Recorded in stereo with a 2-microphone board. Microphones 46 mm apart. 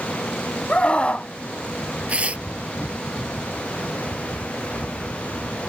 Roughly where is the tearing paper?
Right.